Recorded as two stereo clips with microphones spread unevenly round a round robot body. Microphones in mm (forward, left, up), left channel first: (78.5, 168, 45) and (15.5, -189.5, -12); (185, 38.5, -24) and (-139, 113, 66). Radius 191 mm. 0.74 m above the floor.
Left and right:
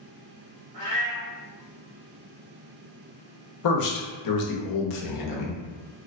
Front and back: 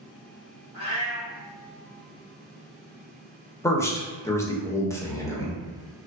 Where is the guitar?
No guitar in this recording.